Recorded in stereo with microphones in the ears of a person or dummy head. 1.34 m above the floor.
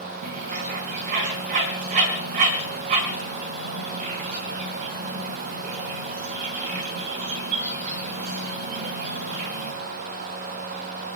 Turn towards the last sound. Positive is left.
turn(degrees=-40)  # may be behind; listen again after turning